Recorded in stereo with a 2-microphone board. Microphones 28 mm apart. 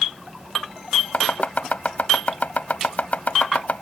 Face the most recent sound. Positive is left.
turn(degrees=60)  # may be behind; listen again after turning